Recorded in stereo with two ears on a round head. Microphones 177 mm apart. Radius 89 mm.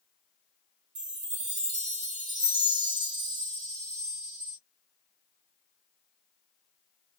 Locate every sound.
0.9 s a chime: 35° right (ahead or behind), 1.0 m